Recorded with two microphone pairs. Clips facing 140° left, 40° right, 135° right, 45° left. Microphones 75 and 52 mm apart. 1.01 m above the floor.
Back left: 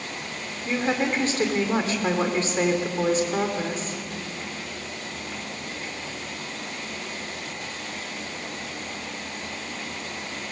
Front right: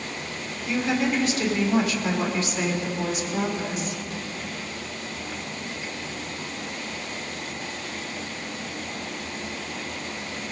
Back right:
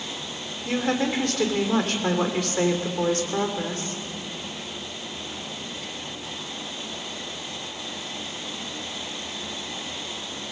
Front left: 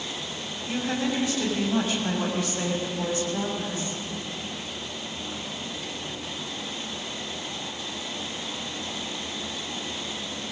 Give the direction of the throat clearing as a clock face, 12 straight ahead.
No throat clearing in this recording.